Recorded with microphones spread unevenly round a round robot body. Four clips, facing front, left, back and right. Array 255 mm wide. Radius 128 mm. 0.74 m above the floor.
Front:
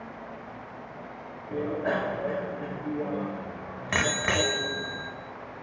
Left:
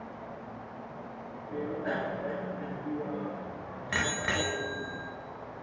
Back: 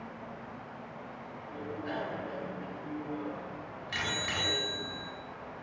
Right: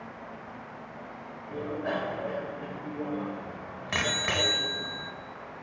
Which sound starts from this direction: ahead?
A bicycle bell, at 1.5 s.